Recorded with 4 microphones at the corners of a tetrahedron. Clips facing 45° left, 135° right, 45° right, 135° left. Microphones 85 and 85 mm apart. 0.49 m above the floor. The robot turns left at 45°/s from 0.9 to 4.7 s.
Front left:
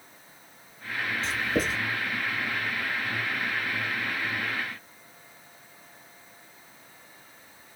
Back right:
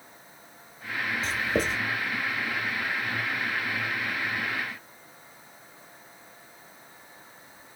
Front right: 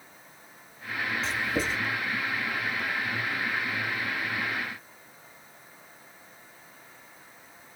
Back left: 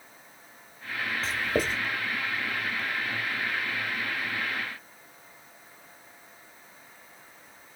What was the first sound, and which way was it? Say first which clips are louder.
Writing: even, back left 3 dB; straight behind.